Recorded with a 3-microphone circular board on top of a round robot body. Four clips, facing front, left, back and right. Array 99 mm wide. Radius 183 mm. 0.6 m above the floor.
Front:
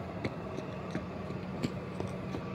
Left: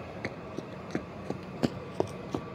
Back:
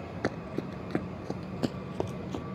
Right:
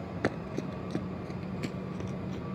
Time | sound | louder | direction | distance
0.2 | running footsteps | right 8 dB, back 7 dB | 130° right | ?